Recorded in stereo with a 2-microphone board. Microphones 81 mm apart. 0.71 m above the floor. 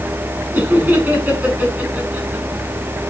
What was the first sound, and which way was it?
Laughter, 15° right (ahead or behind).